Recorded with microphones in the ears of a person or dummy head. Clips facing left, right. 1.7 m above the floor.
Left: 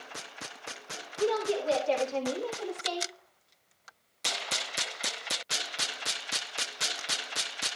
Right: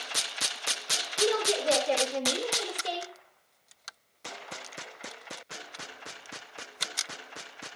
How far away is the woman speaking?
About 6 m.